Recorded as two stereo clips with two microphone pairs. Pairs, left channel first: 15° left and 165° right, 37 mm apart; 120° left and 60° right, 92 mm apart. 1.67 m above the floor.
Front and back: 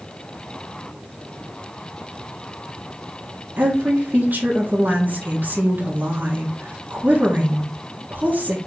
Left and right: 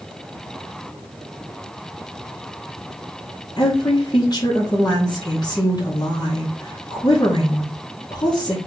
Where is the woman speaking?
160° left, 1.7 m.